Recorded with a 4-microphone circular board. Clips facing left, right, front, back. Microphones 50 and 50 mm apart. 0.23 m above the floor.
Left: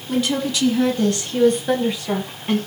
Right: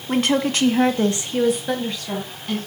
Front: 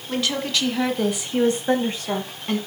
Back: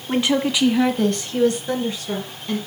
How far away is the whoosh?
I don't hear a whoosh.